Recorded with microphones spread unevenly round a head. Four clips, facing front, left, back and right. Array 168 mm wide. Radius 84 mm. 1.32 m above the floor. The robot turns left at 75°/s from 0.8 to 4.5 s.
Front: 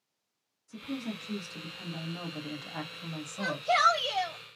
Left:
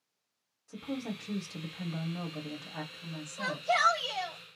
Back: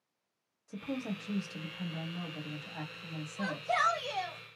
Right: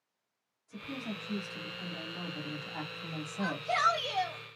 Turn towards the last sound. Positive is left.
turn(degrees=-45)